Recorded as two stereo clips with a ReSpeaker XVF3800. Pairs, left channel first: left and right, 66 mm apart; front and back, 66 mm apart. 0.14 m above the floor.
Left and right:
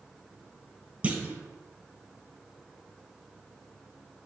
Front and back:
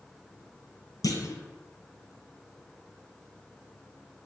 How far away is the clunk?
About 0.5 m.